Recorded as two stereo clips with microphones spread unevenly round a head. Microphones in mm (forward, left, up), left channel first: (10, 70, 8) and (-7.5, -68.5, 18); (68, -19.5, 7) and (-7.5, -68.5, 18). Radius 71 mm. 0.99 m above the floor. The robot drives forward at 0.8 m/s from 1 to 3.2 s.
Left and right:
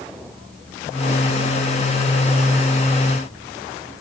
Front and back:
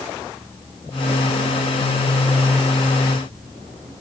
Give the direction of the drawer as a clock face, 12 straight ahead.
I don't hear a drawer.